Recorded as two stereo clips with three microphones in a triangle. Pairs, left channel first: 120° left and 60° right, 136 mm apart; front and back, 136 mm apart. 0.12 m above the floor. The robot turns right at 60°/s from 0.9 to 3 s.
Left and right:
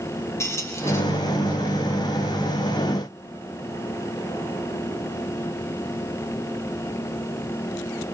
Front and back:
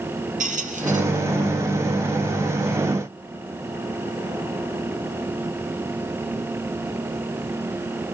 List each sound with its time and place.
0.4 s a squeak: 170° right, 2.5 m; by 1.0 s 165° right, 2.5 m